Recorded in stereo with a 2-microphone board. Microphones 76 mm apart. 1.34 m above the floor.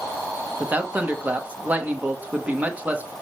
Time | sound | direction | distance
0.6 | a man speaking | 20° right (ahead or behind) | 1.8 m